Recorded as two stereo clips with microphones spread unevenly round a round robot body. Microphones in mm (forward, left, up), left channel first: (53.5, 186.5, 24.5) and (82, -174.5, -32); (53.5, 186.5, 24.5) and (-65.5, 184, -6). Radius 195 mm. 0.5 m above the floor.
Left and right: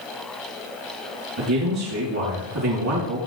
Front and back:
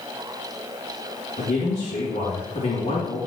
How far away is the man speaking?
About 4.5 m.